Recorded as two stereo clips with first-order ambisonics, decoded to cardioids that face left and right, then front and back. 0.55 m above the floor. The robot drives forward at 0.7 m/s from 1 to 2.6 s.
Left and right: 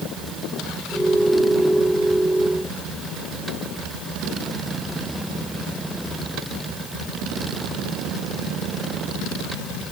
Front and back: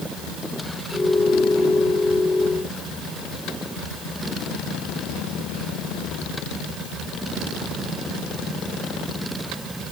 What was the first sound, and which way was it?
Only background noise.